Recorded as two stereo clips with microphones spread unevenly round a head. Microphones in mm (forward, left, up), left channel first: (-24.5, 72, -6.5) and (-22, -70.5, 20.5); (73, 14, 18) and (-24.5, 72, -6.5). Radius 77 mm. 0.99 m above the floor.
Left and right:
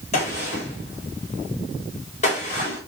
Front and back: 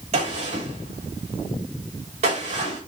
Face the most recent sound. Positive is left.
turn(degrees=130)